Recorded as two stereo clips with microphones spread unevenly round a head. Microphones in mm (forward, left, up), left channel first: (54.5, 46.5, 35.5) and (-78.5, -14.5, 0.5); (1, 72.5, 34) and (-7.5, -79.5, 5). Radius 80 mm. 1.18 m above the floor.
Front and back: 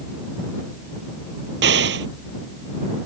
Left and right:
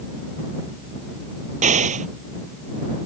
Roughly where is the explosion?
Behind right.